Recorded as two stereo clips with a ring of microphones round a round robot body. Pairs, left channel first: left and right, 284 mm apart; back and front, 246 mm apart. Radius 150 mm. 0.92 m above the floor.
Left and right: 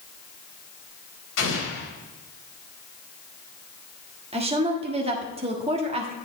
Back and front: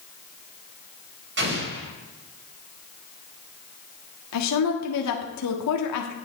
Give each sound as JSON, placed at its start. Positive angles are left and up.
{"t": 1.4, "sound": "an explosion", "azimuth_deg": 40, "distance_m": 3.5}
{"t": 4.3, "sound": "a woman speaking", "azimuth_deg": -160, "distance_m": 1.5}